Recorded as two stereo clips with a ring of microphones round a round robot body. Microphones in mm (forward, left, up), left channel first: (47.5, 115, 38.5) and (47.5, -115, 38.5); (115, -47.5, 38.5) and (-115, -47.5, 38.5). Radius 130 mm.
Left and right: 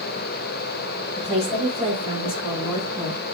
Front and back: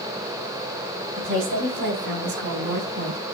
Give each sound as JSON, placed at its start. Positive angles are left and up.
{"t": 1.2, "sound": "a woman speaking", "azimuth_deg": 155, "distance_m": 7.5}